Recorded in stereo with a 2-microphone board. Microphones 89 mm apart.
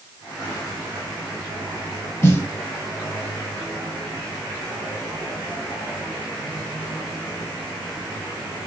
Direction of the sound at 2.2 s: 30° left (ahead or behind).